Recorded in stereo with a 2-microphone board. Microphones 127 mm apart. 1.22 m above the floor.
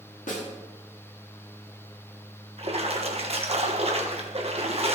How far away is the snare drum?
About 2.5 m.